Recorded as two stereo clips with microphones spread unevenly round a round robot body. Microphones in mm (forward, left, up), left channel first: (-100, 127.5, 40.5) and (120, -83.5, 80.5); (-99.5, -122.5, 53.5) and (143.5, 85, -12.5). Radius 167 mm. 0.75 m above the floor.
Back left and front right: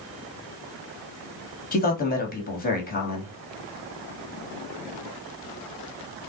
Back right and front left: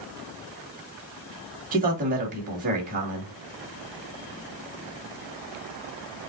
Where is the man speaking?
90° left, 1.8 m.